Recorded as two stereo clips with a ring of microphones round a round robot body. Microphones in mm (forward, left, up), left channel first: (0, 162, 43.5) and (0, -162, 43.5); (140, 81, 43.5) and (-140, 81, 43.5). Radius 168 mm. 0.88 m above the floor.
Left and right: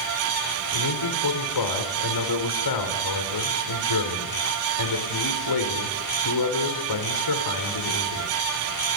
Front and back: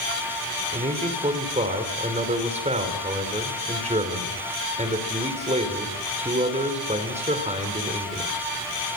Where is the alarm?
I don't hear an alarm.